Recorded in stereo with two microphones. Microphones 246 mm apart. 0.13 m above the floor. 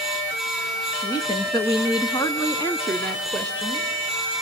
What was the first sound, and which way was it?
A woman speaking, 15° left (ahead or behind).